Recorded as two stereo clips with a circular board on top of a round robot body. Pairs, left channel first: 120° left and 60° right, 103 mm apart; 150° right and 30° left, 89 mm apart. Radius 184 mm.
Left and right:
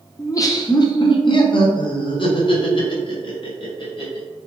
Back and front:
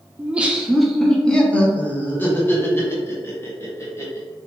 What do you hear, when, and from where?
0.2 s laughter: 85° left, 1.0 m; by 4.2 s 155° left, 2.5 m